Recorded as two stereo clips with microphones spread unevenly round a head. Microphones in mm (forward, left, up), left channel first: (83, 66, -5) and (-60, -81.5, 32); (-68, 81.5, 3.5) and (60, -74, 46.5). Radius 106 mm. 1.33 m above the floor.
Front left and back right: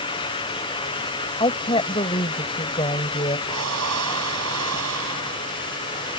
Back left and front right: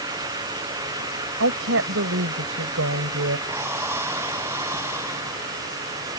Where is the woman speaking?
25° right.